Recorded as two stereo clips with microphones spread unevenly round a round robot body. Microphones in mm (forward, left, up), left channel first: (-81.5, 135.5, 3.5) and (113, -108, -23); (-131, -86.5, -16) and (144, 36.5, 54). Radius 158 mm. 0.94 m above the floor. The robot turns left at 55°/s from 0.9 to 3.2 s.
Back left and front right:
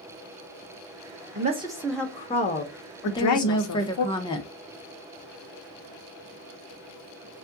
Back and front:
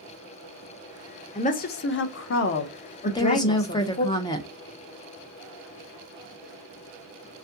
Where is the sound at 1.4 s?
105° right, 0.6 m; by 4.0 s 155° left, 0.6 m.